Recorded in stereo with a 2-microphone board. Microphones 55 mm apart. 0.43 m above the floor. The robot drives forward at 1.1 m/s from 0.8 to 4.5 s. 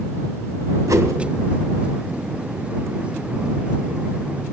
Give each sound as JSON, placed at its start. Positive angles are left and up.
{"t": 0.9, "sound": "a whoosh", "side_deg": -80, "distance_m": 1.1}